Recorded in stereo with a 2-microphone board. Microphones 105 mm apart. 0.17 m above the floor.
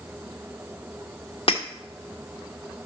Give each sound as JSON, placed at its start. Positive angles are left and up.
{"t": 1.5, "sound": "breaking glass", "side_deg": 60, "distance_m": 2.0}